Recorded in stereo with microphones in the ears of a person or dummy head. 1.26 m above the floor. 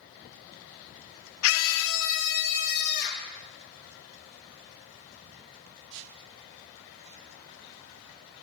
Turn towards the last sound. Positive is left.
turn(degrees=60)  # may be behind; listen again after turning